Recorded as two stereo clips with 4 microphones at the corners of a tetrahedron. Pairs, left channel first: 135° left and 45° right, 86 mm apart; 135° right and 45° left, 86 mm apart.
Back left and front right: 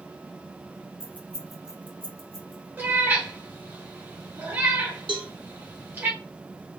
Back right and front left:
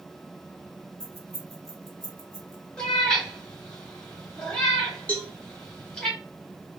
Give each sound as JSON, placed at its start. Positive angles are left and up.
{"t": 1.0, "sound": "keys jangling", "azimuth_deg": 90, "distance_m": 0.9}
{"t": 2.8, "sound": "a cat meowing", "azimuth_deg": -70, "distance_m": 1.6}
{"t": 5.1, "sound": "a cowbell", "azimuth_deg": -65, "distance_m": 0.8}